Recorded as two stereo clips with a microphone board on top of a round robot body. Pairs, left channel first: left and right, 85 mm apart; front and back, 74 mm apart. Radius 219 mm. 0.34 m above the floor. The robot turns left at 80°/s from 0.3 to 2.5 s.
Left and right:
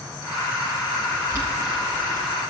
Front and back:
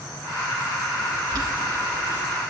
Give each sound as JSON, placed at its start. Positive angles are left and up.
{"t": 1.3, "sound": "boiling", "azimuth_deg": -140, "distance_m": 4.0}